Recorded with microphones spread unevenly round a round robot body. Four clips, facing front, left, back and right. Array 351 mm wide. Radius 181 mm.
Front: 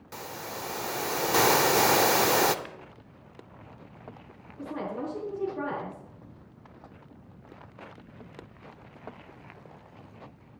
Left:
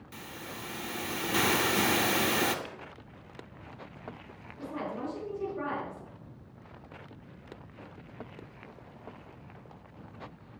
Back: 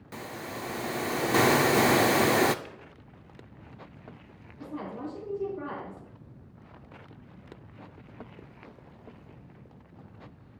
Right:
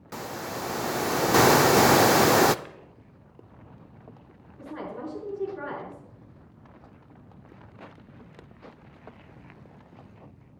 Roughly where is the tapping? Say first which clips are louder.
Left 1 dB, front 2 dB; ahead left.